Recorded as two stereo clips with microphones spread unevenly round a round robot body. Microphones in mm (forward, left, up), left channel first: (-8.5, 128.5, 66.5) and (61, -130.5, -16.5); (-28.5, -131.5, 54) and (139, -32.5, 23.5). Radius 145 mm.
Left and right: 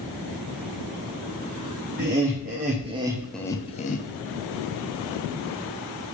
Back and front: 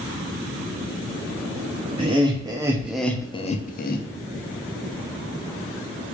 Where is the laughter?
30° right, 1.1 m; by 4.0 s 175° left, 0.7 m.